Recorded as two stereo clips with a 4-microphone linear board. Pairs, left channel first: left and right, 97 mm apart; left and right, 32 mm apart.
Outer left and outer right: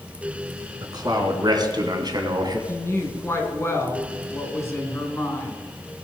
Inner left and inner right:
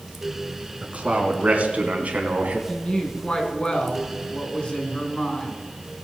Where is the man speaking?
45° right (ahead or behind), 3 m.